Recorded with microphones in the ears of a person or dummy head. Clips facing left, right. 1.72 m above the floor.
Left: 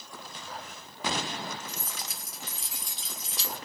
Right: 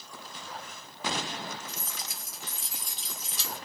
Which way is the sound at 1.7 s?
55° left (ahead or behind).